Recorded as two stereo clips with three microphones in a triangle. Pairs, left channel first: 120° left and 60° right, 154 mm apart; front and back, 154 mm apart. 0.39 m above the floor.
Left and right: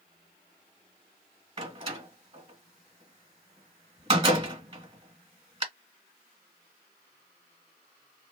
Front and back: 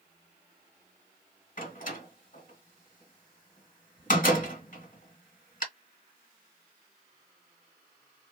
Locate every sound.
1.6 s a door slam: 15° right, 1.4 m